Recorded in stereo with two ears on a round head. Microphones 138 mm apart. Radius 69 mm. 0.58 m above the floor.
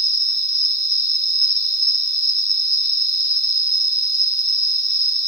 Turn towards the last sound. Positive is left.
turn(degrees=50)  # may be behind; listen again after turning